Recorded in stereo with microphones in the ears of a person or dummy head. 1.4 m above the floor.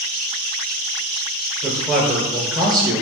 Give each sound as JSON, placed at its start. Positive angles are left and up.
{"t": 1.6, "sound": "a man speaking", "side_deg": -20, "distance_m": 1.5}